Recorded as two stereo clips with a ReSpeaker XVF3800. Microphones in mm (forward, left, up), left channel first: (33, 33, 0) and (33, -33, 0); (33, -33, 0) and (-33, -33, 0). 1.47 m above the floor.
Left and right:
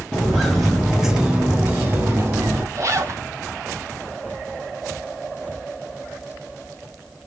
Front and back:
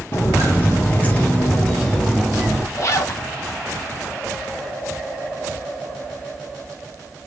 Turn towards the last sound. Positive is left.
turn(degrees=-45)